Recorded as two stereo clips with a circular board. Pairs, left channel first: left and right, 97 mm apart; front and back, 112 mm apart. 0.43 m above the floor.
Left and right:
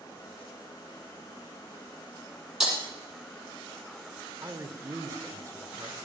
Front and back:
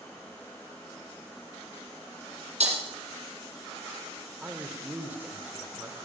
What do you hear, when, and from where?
2.6 s breaking glass: 175° right, 4 m
4.4 s a man speaking: 120° right, 1.3 m